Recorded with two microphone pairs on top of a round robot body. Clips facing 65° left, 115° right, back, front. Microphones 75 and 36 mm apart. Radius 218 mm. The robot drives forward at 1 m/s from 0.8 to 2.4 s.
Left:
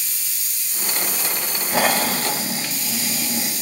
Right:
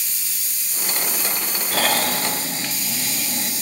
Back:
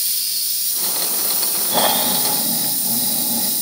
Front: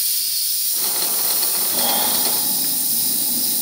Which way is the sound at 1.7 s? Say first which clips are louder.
Left 2 dB, back 5 dB; 135° left.